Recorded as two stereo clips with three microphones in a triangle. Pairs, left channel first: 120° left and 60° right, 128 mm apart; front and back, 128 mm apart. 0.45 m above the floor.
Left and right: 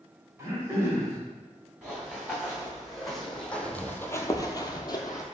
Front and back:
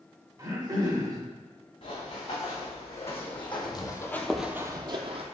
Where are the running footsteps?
25° left, 1.8 m; by 5.2 s 175° left, 0.7 m.